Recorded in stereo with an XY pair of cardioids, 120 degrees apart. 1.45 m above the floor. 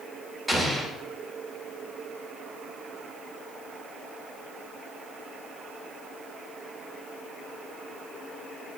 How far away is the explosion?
About 2.5 m.